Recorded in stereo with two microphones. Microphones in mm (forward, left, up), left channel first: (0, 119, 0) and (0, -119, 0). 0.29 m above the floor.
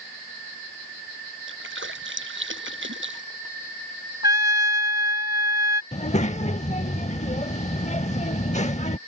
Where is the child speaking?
30° left (ahead or behind).